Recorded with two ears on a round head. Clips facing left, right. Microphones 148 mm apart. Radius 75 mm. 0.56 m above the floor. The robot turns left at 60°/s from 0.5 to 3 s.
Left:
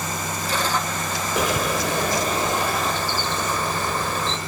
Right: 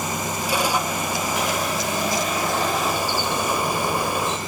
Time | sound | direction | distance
1.4 | a bird | 85° left | 1.8 m